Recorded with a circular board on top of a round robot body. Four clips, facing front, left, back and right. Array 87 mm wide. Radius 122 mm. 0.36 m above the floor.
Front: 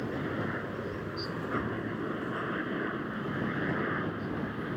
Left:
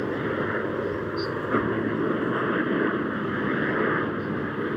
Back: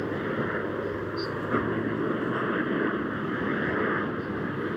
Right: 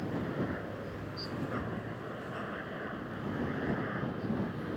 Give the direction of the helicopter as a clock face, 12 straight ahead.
8 o'clock.